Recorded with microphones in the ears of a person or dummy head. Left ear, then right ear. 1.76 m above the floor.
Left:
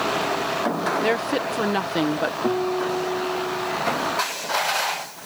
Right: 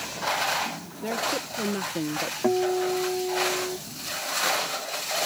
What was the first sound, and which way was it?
A woman speaking, 55° left (ahead or behind).